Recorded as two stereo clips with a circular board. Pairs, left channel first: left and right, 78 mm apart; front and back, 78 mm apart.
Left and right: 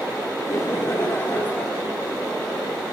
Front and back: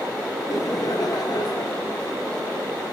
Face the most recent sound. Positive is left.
turn(degrees=20)